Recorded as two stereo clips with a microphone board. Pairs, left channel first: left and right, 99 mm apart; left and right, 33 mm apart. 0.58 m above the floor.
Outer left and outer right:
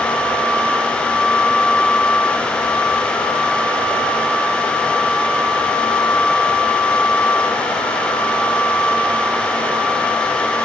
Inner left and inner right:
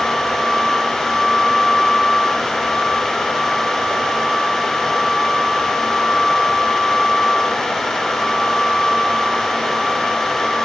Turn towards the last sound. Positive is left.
No sound to turn to.